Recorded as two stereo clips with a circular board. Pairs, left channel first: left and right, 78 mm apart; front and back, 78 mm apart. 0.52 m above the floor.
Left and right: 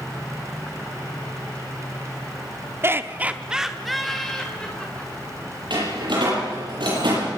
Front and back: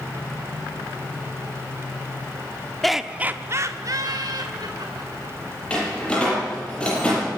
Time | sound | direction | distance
2.8 | laughter | 85° right | 1.0 m
5.7 | a door slam | 75° right | 9 m